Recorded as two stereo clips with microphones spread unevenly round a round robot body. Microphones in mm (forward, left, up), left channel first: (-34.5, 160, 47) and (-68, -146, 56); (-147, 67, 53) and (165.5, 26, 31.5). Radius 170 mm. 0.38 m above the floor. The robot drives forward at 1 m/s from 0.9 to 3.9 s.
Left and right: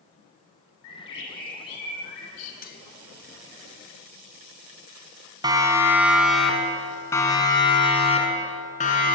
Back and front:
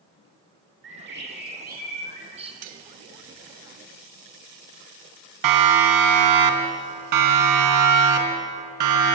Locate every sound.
0.8 s a bird: 45° left, 4.5 m; by 2.5 s 65° left, 3.5 m
2.6 s cutlery clinking: 25° left, 1.5 m; by 2.8 s 30° left, 1.3 m
5.4 s a siren: 20° right, 3 m; by 9.2 s 20° left, 4.5 m